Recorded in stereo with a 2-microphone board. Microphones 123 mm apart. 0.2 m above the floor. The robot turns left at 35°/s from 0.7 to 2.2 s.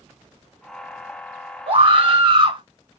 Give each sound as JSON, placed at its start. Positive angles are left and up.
{"t": 1.7, "sound": "a scream", "side_deg": -50, "distance_m": 2.0}